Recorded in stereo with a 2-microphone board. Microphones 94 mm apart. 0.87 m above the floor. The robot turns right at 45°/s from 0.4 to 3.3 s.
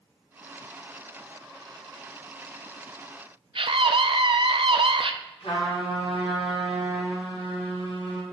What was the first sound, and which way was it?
A scream, 65° right (ahead or behind).